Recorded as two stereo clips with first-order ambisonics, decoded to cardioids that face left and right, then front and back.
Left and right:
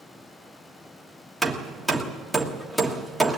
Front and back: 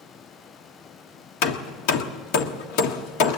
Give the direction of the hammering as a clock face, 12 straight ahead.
12 o'clock.